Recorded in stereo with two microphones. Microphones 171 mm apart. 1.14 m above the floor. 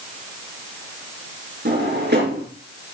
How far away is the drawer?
About 4 m.